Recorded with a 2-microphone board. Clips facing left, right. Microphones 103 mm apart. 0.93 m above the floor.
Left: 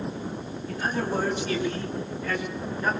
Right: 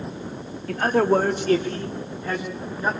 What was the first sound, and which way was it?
A man speaking, 70° right (ahead or behind).